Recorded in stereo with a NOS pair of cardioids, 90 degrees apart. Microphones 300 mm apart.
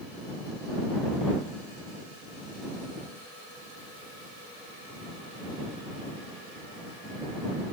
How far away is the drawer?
I don't hear a drawer.